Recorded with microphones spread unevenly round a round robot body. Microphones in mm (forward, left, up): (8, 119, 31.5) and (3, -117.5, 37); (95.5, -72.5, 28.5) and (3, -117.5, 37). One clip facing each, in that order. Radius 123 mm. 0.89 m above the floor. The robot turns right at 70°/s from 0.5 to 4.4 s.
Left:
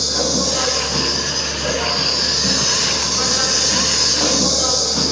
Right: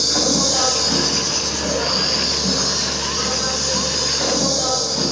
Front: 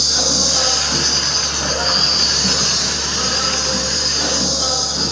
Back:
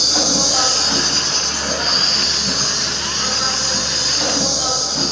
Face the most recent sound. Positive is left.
turn(degrees=150)